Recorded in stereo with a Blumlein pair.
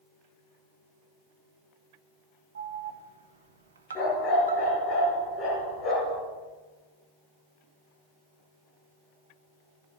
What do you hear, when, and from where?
2.5 s an alarm: 65° right, 1.4 m
4.0 s a dog barking: 30° left, 5 m